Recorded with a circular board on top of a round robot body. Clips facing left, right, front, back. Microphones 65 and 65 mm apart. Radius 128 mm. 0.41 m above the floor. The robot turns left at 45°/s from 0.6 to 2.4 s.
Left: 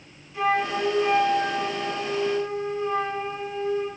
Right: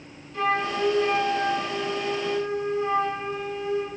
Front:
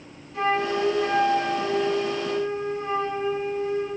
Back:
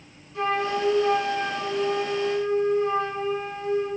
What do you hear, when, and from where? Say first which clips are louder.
0.3 s a flute: left 1 dB, front 1 dB; 10° left, 2.5 m; by 3.9 s 70° right, 2.5 m